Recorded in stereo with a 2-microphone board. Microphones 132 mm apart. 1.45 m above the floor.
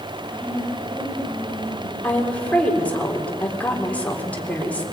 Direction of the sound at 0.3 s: 15° left (ahead or behind).